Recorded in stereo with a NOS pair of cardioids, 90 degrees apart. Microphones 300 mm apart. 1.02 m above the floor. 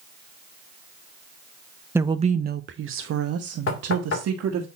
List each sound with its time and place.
1.9 s a woman speaking: 10° right, 0.6 m; by 4.7 s 60° right, 1.9 m
3.7 s knocking: 45° left, 2.5 m